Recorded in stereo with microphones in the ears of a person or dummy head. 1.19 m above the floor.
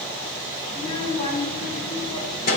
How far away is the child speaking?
About 2.5 m.